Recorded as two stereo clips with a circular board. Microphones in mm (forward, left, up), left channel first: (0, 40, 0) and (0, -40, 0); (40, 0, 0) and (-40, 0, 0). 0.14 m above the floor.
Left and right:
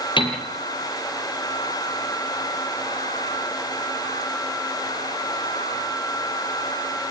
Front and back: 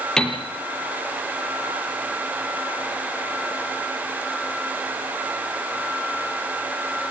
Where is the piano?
85° left, 4.5 m.